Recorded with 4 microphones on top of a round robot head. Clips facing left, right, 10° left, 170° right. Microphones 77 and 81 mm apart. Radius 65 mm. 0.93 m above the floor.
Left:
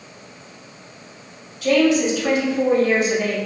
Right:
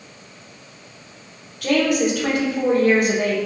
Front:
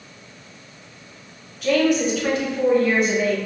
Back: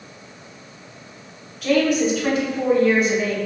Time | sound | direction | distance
1.6 | a woman speaking | 80° right | 1.1 m